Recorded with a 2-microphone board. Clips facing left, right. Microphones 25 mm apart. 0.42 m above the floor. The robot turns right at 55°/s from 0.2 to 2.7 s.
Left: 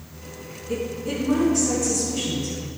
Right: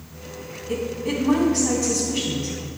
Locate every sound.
0.7 s a woman speaking: 125° right, 3 m; by 2.6 s 20° right, 3 m